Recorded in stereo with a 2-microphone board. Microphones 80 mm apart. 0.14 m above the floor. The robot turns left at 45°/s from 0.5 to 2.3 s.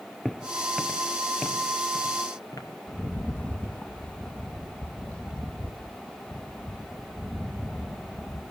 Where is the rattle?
20° left (ahead or behind), 1.5 m.